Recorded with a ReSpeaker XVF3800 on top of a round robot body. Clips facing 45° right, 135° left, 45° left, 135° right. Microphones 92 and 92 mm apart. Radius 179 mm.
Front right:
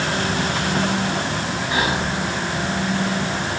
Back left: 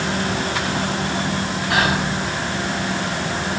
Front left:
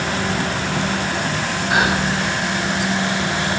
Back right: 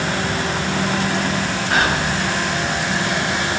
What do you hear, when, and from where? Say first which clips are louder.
1.7 s whispering: back left 3 dB, front left 1 dB; 125° left, 9 m